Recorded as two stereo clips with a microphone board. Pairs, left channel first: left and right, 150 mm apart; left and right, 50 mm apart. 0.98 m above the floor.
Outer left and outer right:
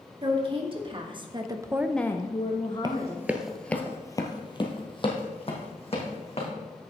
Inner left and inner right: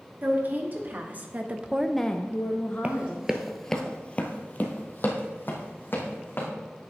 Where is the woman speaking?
40° right (ahead or behind), 2.5 m; by 3.8 s 40° left (ahead or behind), 2.5 m.